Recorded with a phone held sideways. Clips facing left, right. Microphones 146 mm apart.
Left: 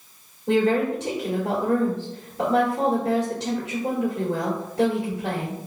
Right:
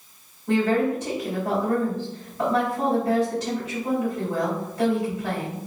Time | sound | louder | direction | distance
0.5 | a woman speaking | left 1 dB | 75° left (ahead or behind) | 1.9 m